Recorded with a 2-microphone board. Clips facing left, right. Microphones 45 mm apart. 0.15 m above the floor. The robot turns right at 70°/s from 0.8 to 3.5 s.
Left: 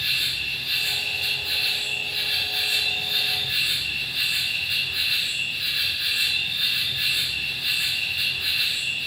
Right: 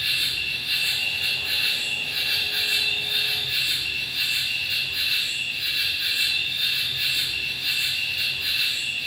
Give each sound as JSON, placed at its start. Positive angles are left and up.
{"t": 0.0, "sound": "an insect", "azimuth_deg": -175, "distance_m": 3.5}